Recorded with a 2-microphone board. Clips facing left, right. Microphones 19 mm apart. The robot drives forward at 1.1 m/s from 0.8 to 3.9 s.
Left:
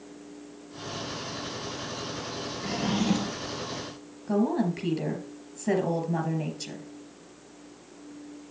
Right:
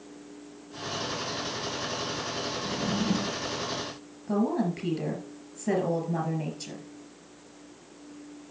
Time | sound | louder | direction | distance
2.6 | a drawer | left 4 dB | 65° left (ahead or behind) | 0.7 m
4.3 | a woman speaking | left 1 dB | 5° left (ahead or behind) | 4 m